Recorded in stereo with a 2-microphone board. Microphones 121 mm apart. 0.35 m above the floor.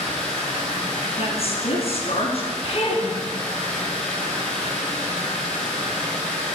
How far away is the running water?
About 5.5 m.